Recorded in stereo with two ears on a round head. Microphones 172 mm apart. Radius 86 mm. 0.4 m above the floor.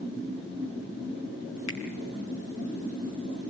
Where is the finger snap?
75° left (ahead or behind), 4.5 m.